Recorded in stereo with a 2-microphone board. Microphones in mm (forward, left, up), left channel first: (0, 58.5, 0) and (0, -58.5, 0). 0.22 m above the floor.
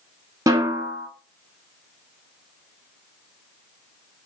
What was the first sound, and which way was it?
A snare drum, 30° right (ahead or behind).